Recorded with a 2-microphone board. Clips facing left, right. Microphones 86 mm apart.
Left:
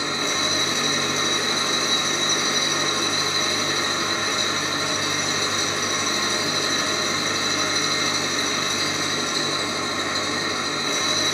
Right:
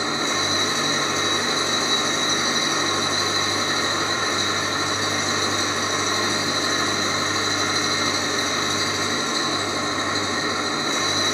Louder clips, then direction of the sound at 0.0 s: Right 2 dB; 25° right (ahead or behind).